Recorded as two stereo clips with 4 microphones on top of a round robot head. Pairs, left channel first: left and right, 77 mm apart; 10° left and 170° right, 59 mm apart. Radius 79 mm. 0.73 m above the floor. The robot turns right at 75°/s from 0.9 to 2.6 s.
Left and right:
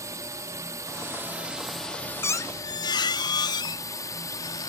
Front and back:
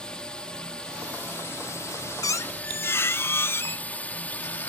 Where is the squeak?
30° left; by 4.7 s 60° left.